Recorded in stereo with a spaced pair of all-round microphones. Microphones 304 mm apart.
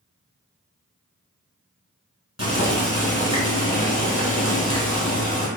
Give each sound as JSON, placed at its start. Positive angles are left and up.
{"t": 2.4, "sound": "boiling", "side_deg": 50, "distance_m": 1.1}